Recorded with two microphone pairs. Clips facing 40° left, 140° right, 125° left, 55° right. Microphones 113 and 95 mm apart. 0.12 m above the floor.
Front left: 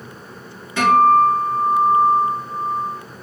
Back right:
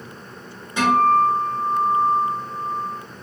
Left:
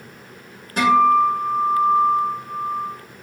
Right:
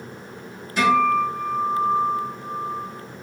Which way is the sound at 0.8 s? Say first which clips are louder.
Front left 4 dB, left 4 dB; 155° left.